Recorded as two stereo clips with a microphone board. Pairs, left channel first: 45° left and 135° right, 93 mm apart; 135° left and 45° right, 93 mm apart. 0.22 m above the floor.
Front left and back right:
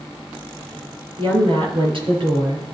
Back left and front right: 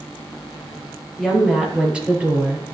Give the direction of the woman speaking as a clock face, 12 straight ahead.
5 o'clock.